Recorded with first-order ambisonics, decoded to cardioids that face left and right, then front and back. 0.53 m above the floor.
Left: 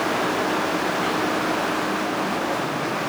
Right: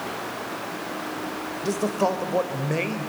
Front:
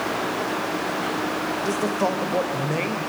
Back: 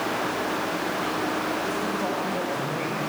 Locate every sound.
1.6 s a man speaking: 55° right, 2.5 m